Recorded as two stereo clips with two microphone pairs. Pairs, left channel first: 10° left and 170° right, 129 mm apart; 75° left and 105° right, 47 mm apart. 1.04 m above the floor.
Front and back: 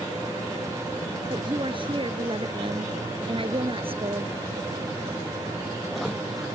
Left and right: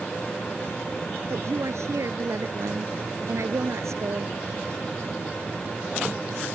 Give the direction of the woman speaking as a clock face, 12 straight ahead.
4 o'clock.